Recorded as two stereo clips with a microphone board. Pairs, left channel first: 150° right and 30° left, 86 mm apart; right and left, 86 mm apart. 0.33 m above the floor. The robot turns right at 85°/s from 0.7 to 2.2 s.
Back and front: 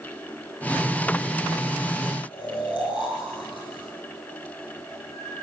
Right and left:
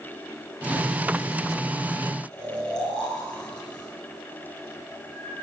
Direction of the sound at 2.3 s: 175° right.